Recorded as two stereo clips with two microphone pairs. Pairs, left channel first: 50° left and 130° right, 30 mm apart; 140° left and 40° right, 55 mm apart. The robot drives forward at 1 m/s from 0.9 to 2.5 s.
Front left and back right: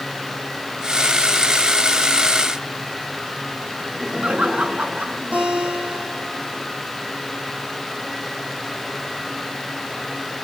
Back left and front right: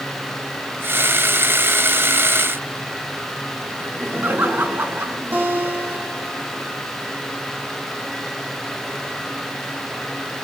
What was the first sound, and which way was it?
Laughter, 90° right.